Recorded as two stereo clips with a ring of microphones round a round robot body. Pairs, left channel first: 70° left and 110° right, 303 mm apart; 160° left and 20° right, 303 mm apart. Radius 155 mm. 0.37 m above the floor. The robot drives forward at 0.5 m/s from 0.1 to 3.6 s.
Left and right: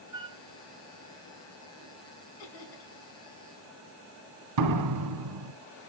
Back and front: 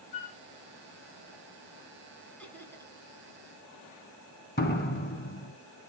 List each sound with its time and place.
0.1 s a flute: 165° left, 3 m
2.4 s laughter: 70° left, 4 m; by 2.9 s 75° left, 4 m
4.6 s a door slam: 140° right, 3.5 m